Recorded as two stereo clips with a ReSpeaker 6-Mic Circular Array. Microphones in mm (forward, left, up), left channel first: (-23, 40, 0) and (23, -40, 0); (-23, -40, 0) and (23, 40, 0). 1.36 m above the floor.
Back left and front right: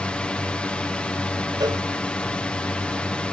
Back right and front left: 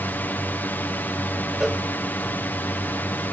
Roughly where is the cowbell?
Ahead right.